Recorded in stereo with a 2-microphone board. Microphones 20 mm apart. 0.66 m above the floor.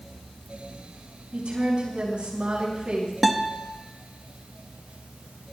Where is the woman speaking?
60° right (ahead or behind), 7 m.